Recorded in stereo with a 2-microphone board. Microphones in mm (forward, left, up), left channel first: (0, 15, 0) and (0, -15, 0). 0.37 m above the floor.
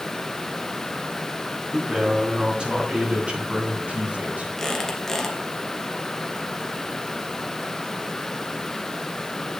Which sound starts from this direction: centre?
A squeak, at 4.6 s.